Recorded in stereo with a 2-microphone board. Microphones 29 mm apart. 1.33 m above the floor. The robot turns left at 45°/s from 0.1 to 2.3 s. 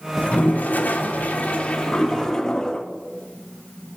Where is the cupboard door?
I don't hear a cupboard door.